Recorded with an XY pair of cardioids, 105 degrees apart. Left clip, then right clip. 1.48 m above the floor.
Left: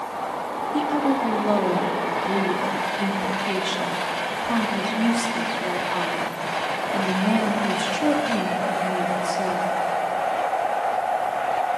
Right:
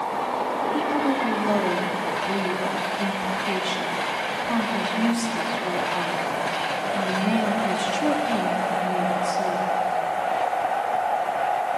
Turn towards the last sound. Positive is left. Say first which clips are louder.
# left 5 dB
turn(degrees=10)